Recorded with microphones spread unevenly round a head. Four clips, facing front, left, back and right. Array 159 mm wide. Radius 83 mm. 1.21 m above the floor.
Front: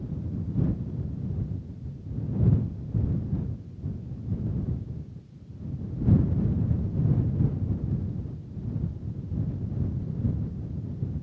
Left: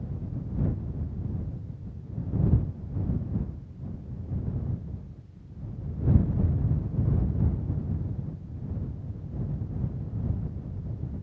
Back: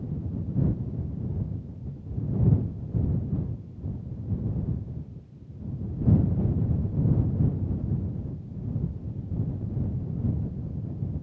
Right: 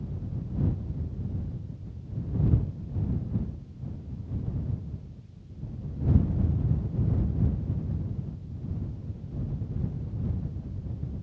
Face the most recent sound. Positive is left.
No sound to turn to.